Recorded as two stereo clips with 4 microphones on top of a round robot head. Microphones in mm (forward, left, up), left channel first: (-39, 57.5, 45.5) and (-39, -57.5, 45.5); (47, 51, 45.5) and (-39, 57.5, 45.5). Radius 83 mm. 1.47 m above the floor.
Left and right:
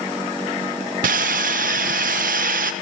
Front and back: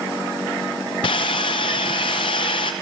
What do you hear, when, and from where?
1.0 s sawing: 60° right, 0.6 m